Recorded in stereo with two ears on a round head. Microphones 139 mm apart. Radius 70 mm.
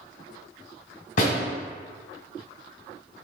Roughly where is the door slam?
Left.